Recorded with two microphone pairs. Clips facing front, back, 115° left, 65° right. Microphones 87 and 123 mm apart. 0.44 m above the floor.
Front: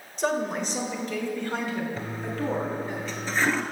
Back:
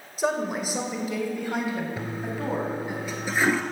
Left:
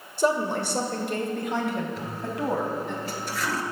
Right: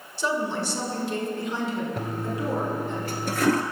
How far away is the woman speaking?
About 1.5 m.